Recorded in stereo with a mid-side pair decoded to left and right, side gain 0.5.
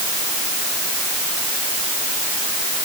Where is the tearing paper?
No tearing paper in this recording.